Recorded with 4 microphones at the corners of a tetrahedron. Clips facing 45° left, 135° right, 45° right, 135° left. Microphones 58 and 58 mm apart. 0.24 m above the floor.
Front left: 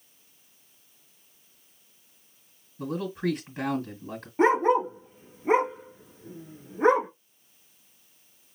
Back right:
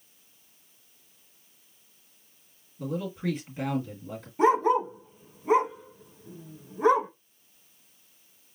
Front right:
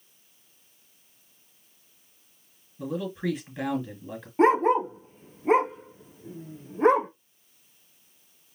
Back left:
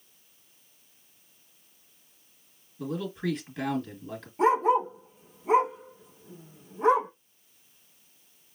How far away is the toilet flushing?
I don't hear a toilet flushing.